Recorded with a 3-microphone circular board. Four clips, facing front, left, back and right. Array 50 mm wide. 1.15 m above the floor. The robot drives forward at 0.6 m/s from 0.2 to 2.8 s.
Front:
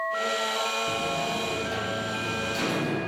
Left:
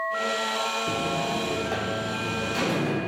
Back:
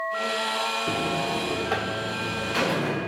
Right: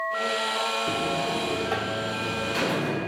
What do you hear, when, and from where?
0.9 s a buzzer: 165° right, 0.5 m; by 3.1 s 175° right, 1.6 m